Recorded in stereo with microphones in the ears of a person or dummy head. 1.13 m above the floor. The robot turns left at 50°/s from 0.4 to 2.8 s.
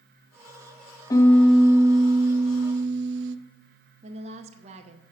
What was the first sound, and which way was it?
A piano, 20° left.